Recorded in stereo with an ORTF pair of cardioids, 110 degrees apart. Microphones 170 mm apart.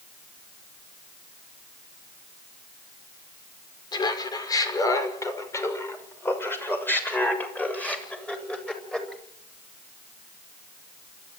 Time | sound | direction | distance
3.9 | laughter | 25° left | 5.5 m